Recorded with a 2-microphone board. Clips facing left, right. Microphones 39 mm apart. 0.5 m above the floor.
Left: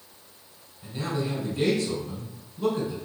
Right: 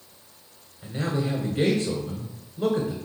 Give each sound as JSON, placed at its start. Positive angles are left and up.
{"t": 0.8, "sound": "a man speaking", "side_deg": -50, "distance_m": 1.5}